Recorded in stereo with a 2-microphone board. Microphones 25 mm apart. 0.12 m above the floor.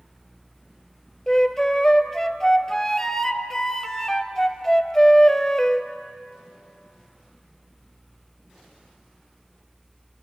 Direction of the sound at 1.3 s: 20° left (ahead or behind).